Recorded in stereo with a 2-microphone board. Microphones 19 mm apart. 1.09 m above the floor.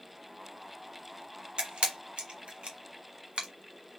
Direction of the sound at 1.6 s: 70° right (ahead or behind).